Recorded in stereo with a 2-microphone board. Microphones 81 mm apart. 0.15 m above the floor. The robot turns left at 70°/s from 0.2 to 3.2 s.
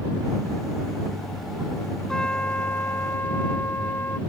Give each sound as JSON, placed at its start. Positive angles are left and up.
{"t": 2.1, "sound": "a trumpet", "side_deg": 10}